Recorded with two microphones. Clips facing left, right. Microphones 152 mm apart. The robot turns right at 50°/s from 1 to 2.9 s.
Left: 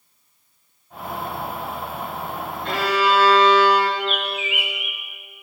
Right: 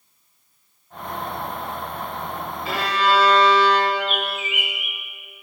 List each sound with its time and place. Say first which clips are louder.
2.6 s a violin: left 1 dB; 5° right (ahead or behind), 1.0 m; by 3.9 s 10° left (ahead or behind), 1.0 m
4.0 s a bird: even; 45° right (ahead or behind), 0.9 m